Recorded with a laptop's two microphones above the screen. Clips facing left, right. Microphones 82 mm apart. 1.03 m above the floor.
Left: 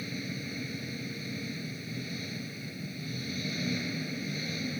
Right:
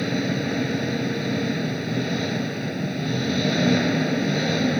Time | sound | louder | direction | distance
0.0 | an engine running | right 14 dB | 75° right (ahead or behind) | ?